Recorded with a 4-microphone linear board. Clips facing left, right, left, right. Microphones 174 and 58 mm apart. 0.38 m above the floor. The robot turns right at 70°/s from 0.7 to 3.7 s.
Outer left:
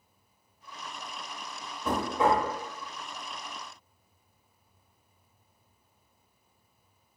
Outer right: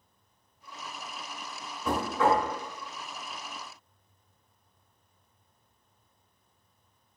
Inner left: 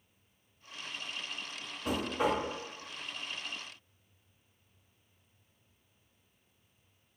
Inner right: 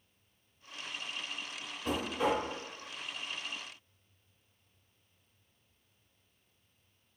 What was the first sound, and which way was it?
Knocking, 5° left.